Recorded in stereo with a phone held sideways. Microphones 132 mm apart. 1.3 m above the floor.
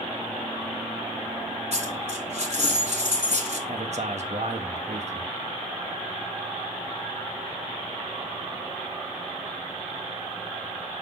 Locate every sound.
1.7 s a dropped coin: 55° right (ahead or behind), 2 m
3.7 s a man speaking: 60° right (ahead or behind), 1.0 m